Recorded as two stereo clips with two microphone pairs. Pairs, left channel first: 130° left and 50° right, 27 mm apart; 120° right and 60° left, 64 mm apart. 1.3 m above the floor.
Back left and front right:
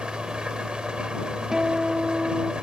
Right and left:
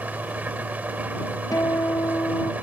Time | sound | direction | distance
0.0 | an engine running | straight ahead | ?
1.5 | a guitar | 120° right | ?